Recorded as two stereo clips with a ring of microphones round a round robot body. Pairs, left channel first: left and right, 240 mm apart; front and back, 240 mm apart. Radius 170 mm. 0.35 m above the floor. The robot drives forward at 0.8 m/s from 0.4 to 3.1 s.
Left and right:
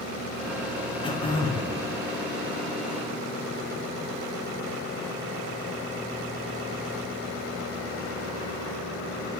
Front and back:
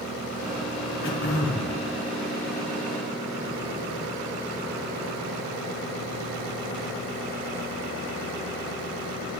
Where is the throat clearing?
25° left, 2.5 m; by 1.7 s 30° left, 2.5 m.